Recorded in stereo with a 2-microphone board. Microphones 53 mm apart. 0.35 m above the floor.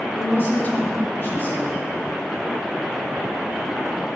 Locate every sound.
0.1 s a woman speaking: 45° left (ahead or behind), 1.7 m